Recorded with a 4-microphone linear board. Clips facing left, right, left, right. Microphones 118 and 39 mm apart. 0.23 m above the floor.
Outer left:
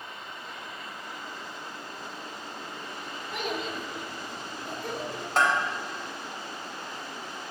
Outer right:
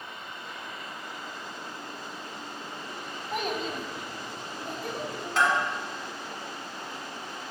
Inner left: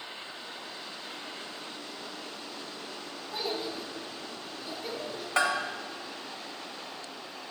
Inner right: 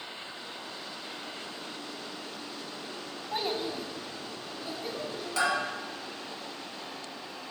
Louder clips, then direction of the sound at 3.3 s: Outer right 2 dB, inner right 2 dB; 50° right (ahead or behind).